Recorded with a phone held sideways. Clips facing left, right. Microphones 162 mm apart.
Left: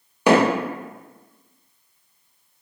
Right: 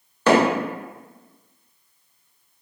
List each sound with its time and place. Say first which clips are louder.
0.3 s hammering: left 1 dB; 15° left (ahead or behind), 0.8 m